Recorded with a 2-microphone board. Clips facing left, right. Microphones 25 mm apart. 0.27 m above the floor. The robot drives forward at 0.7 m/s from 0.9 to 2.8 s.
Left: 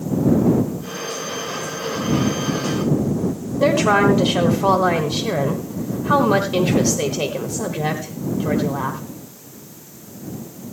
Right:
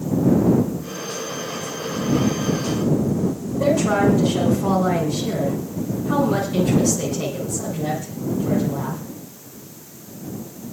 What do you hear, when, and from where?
3.6 s a woman speaking: 45° left (ahead or behind), 1.7 m